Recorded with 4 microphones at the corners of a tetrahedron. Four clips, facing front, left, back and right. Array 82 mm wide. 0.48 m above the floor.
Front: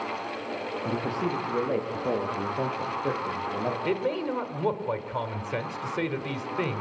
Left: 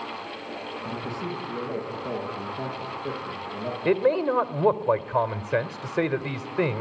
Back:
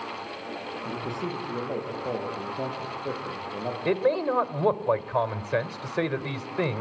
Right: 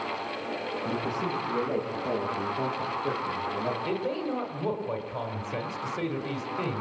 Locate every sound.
0.8 s a man speaking: 5° right, 9 m; by 3.8 s 10° left, 9 m
3.9 s a man speaking: 100° left, 1.6 m